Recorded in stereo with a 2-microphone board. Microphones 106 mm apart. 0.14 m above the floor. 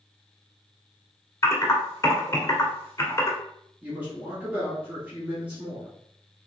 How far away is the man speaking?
About 1.8 m.